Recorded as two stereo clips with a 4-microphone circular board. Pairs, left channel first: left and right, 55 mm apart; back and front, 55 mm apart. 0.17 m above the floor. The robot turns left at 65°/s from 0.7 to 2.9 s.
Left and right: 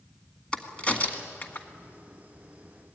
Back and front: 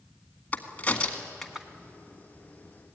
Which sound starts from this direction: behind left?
A crack, at 0.5 s.